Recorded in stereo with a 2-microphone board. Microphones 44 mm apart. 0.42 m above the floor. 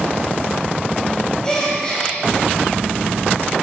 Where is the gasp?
20° left (ahead or behind), 2.5 m.